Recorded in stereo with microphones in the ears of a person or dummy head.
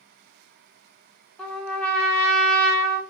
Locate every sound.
1.4 s a trumpet: 5° left (ahead or behind), 0.8 m